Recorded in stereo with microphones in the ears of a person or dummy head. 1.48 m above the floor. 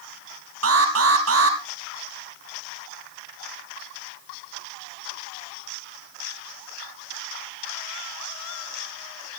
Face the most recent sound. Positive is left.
turn(degrees=-75)  # may be behind; listen again after turning